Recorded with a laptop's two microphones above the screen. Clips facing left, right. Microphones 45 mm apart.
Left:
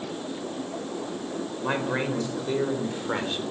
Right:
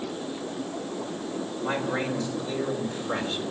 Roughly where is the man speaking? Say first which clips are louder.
Left 1 dB; left.